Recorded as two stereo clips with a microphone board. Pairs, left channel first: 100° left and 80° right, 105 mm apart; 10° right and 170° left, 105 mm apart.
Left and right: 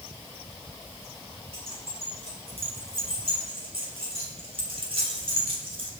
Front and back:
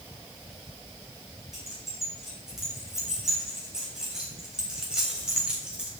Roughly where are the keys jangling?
Right.